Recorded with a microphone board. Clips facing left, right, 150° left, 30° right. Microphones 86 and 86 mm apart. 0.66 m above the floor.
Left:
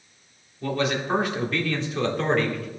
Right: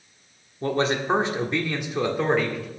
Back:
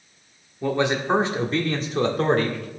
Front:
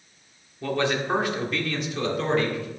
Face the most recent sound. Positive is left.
turn(degrees=-175)